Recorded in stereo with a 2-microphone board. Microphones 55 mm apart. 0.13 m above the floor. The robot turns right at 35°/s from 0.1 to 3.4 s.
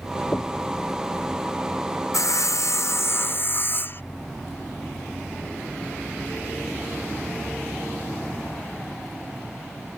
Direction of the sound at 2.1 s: 95° left.